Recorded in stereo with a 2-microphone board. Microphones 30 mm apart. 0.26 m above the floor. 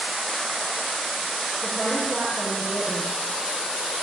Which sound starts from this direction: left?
A woman speaking, at 1.6 s.